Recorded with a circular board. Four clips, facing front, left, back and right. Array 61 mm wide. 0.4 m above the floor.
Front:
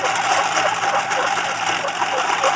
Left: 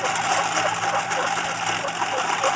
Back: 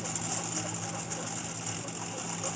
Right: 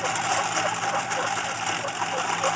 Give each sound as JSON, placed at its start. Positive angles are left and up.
{"t": 0.0, "sound": "a lawn mower", "azimuth_deg": 10}